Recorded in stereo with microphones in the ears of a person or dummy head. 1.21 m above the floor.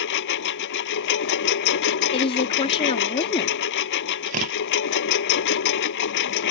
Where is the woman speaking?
25° left (ahead or behind).